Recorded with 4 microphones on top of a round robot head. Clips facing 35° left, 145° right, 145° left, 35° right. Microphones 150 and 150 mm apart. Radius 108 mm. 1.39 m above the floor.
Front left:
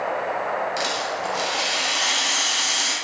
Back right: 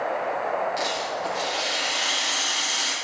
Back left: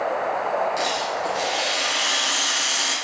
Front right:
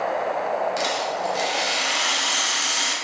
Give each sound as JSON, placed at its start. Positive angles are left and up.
{"t": 0.8, "sound": "a rattle", "azimuth_deg": -5, "distance_m": 1.2}